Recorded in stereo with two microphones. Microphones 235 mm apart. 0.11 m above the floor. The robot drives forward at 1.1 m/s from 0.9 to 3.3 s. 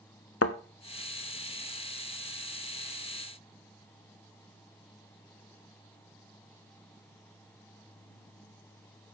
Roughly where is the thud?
Left.